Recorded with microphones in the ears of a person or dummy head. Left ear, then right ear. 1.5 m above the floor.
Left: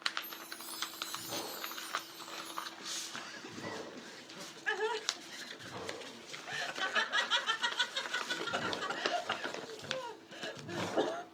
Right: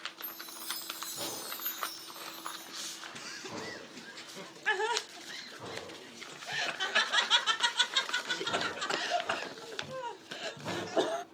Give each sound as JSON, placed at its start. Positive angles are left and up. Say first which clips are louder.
{"t": 0.2, "sound": "a chime", "louder": "right 3 dB", "side_deg": -20, "distance_m": 3.5}
{"t": 3.1, "sound": "laughter", "louder": "right 3 dB", "side_deg": -25, "distance_m": 0.7}